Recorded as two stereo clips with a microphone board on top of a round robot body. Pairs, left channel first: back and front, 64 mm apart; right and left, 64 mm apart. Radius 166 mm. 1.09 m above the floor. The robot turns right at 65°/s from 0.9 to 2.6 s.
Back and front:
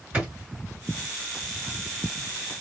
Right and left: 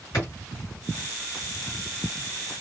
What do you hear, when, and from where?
0.1 s a drawer: 70° right, 1.7 m